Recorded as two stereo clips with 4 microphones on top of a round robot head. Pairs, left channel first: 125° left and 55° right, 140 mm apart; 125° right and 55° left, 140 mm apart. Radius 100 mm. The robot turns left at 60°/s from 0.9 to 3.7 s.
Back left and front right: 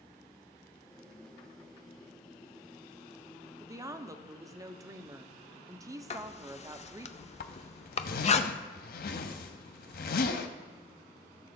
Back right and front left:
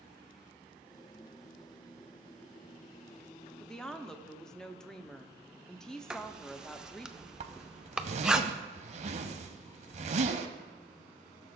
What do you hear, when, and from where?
3.6 s a woman speaking: 35° right, 0.7 m; by 7.1 s 40° right, 0.7 m
6.1 s writing: 140° left, 0.6 m
7.4 s a zipper: 100° left, 0.6 m